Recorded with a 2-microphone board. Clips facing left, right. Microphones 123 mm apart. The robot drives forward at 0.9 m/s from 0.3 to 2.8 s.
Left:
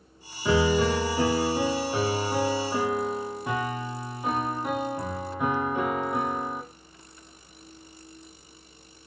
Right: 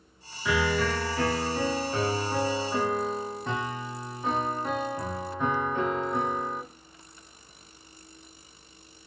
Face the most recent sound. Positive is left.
turn(degrees=10)  # may be behind; listen again after turning